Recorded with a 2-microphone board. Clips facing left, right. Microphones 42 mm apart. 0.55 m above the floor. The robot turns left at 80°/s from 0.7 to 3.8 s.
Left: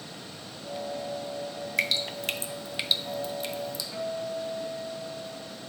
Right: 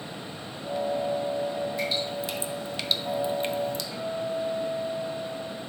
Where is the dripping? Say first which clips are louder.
Even; 70° left (ahead or behind), 0.5 m; by 3.8 s 55° right (ahead or behind), 0.5 m.